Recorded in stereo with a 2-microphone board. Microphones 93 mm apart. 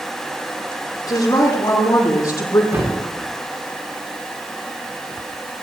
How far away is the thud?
About 7 m.